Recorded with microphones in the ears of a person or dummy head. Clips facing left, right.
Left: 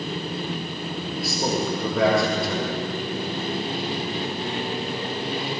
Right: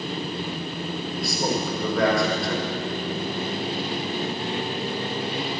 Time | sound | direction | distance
1.2 | a man speaking | centre (ahead or behind) | 6.5 m